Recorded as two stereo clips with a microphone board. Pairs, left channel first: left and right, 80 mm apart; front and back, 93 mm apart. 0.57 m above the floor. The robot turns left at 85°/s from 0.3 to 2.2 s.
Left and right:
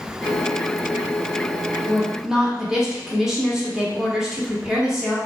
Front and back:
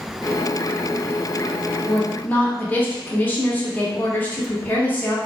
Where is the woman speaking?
15° left, 0.6 m; by 5.2 s 15° right, 0.6 m.